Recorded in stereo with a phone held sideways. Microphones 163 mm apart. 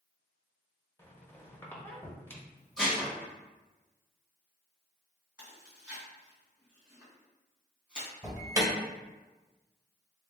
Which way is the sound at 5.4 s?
5° right (ahead or behind).